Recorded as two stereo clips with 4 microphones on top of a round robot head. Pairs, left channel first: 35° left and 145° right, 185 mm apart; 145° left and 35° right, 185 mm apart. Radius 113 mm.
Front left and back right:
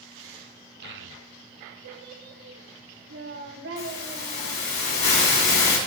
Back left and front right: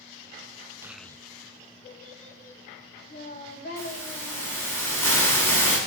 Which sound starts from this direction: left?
A hiss, at 3.8 s.